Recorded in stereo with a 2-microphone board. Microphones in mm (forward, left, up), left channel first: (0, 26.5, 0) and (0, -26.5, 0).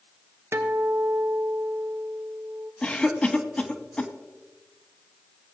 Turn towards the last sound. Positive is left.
turn(degrees=20)  # may be behind; listen again after turning